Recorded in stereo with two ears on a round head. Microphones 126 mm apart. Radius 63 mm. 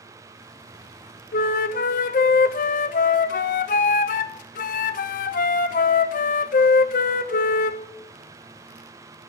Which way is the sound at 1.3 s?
70° left (ahead or behind).